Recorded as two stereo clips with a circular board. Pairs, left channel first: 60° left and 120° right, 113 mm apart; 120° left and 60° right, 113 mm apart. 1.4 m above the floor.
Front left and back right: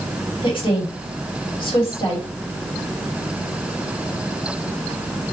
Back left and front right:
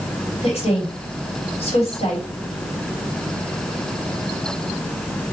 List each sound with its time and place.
0.4 s a woman speaking: 100° left, 2 m